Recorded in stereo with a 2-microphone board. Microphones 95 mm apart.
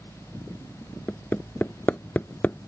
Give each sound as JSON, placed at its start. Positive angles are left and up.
{"t": 1.1, "sound": "hammering", "side_deg": 20}